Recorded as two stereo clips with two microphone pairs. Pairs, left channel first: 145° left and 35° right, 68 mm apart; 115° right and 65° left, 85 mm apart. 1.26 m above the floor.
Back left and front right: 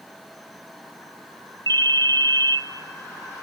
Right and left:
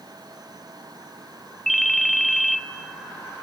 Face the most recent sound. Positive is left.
turn(degrees=-30)